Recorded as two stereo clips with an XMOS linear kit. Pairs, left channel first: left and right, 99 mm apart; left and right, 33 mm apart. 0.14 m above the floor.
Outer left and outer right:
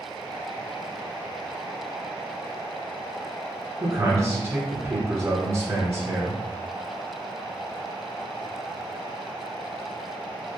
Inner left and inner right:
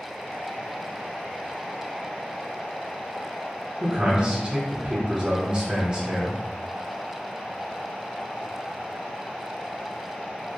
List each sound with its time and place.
3.8 s a man speaking: 30° right (ahead or behind), 1.8 m